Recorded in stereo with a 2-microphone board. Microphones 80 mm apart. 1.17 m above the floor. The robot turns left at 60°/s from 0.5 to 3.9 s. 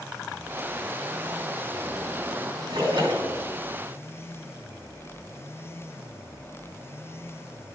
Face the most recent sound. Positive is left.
turn(degrees=-145)